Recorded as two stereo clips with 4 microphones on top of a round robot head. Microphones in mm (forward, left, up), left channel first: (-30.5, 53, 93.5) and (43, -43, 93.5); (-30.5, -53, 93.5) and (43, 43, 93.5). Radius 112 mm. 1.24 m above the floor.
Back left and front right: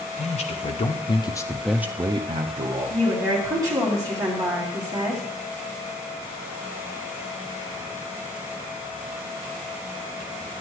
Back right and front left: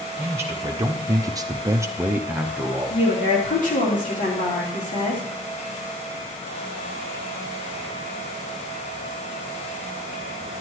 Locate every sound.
0.2 s a man speaking: 120° left, 1.2 m; by 3.0 s 35° right, 1.1 m
2.9 s a woman speaking: 115° right, 3 m